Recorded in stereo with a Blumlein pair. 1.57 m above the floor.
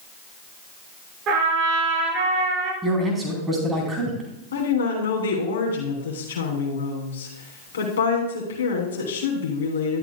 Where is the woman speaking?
65° left, 3 m.